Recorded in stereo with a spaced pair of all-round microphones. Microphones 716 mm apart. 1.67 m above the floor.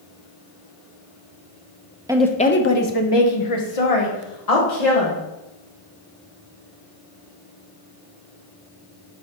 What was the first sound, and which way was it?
A woman speaking, 5° right (ahead or behind).